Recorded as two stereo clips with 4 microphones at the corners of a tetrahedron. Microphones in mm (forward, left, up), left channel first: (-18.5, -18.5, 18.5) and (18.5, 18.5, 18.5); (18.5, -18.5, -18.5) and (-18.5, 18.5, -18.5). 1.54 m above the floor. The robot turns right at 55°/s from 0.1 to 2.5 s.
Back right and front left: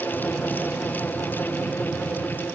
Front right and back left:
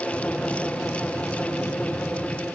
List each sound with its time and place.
Only background noise.